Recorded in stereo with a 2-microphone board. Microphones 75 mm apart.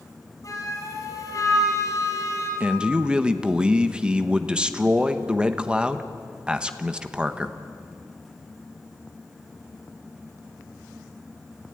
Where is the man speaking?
10° right (ahead or behind), 1.1 m.